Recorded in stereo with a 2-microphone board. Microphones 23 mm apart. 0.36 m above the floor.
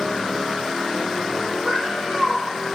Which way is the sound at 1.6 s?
5° left (ahead or behind).